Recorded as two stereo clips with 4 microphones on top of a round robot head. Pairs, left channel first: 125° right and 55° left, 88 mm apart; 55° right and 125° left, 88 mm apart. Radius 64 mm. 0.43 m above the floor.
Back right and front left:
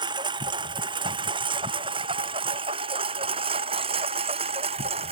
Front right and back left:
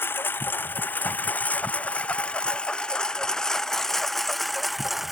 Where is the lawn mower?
15° left; by 5.1 s 40° left.